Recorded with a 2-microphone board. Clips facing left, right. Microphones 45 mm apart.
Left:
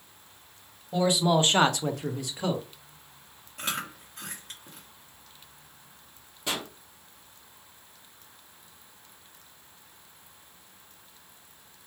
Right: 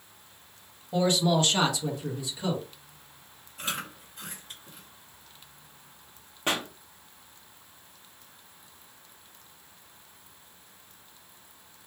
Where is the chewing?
65° left (ahead or behind), 1.1 m.